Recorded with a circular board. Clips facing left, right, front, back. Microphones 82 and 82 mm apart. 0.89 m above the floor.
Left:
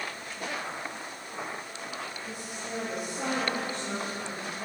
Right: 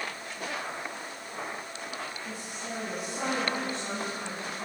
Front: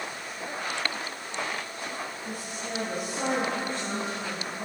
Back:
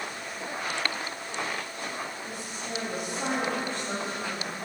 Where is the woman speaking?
45° right, 7 m.